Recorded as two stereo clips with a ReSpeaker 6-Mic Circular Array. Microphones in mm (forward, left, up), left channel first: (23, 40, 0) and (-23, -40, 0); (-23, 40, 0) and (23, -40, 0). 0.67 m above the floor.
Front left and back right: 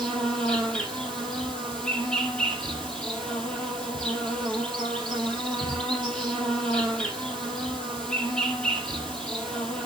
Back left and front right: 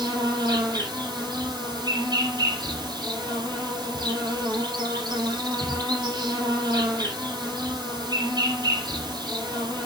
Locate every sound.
0.0 s an insect: 20° right, 3.5 m